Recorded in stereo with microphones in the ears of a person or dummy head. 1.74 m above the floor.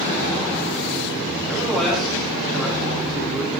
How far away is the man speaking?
About 4 m.